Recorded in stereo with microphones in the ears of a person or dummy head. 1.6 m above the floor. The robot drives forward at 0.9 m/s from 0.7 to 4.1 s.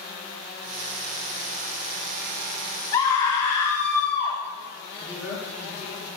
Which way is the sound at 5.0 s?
10° right (ahead or behind).